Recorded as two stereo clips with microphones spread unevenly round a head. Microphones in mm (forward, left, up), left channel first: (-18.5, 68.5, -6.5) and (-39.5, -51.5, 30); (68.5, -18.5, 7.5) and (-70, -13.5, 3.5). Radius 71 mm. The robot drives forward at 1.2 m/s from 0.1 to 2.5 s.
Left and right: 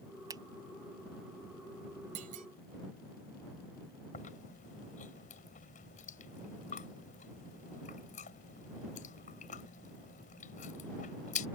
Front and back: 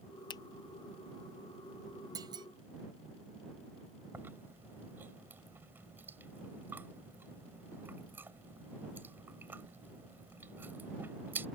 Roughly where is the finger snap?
Ahead right.